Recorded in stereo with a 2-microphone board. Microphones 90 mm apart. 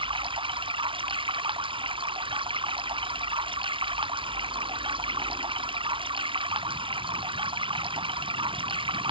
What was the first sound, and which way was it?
Running water, 70° right (ahead or behind).